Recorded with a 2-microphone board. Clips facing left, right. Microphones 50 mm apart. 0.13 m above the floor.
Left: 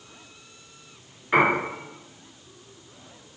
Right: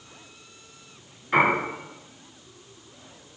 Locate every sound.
1.3 s a piano: 15° left (ahead or behind), 1.5 m